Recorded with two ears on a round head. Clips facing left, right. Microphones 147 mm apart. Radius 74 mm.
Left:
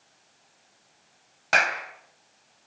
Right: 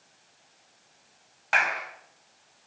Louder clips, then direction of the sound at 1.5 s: Left 2 dB; 50° left (ahead or behind).